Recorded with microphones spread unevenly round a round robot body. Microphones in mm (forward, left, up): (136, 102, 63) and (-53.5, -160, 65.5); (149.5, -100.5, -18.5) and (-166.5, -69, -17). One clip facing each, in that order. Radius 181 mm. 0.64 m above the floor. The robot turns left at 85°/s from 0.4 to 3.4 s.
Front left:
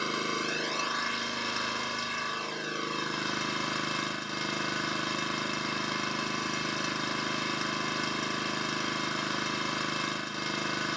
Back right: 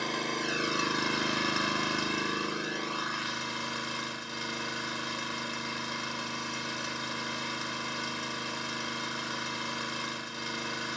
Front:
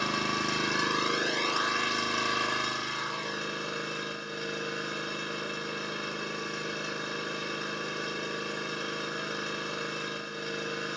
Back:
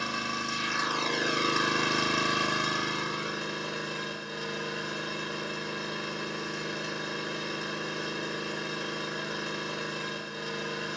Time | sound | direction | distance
0.0 | an engine running | 25° right | 1.0 m